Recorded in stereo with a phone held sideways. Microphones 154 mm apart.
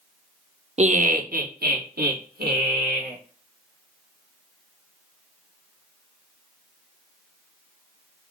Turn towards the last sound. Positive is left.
turn(degrees=-80)